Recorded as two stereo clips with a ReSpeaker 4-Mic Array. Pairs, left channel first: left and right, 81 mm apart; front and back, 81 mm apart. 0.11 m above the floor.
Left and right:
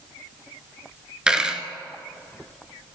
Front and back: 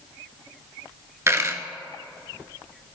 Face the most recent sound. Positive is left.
turn(degrees=-165)